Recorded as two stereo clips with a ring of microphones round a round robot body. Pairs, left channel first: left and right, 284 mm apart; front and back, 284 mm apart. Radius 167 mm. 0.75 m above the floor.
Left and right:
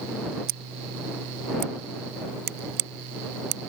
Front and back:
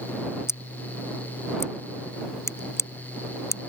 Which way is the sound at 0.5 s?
80° right.